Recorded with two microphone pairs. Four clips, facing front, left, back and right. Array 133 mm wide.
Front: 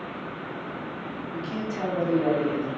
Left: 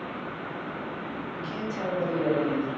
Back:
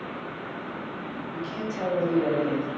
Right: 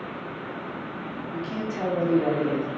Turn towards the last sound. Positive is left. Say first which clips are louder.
# right 5 dB, front 1 dB
turn(degrees=-70)